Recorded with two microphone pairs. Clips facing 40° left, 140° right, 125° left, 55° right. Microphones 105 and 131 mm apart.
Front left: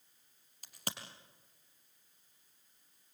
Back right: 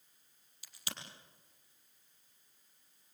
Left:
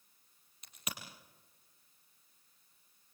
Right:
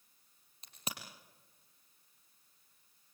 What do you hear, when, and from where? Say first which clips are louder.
0.6 s a crack: front left 4 dB, right 1 dB; straight ahead, 4.5 m